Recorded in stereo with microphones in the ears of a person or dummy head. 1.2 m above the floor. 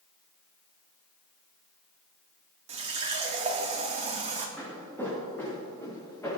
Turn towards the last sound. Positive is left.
turn(degrees=5)  # may be behind; listen again after turning